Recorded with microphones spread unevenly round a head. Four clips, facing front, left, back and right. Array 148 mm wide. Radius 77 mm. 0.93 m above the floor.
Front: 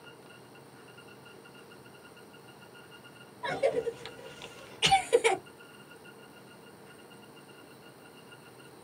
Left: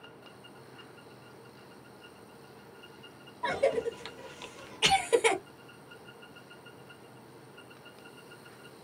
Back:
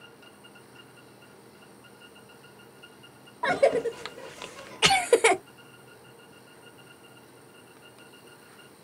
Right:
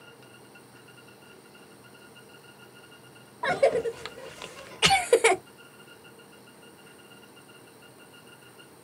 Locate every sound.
3.4 s a cough: 150° right, 0.7 m